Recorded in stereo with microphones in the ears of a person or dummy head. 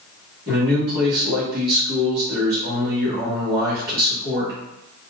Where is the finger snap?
No finger snap in this recording.